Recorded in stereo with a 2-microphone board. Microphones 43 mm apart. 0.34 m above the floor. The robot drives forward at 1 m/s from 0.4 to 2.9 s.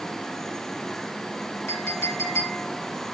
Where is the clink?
70° left (ahead or behind), 2.5 m; by 2.6 s 65° left (ahead or behind), 2.5 m.